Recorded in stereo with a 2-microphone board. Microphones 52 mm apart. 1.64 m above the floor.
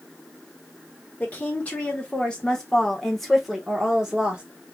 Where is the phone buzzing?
No phone buzzing in this recording.